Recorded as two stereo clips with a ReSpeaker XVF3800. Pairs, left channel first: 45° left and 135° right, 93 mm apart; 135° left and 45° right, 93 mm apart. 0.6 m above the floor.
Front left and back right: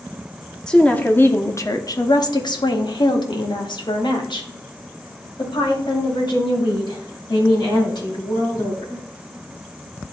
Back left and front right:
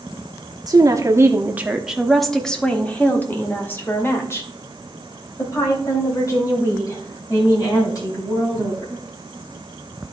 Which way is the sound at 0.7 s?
35° right.